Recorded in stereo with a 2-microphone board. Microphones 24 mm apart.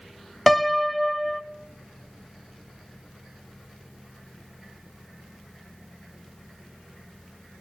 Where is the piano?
5° left (ahead or behind), 0.6 m.